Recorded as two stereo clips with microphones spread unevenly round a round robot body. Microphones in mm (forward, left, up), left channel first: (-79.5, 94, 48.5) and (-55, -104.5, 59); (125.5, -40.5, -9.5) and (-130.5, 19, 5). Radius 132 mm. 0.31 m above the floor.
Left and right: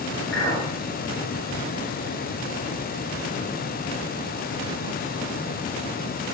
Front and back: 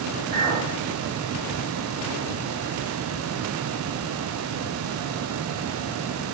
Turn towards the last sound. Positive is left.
turn(degrees=90)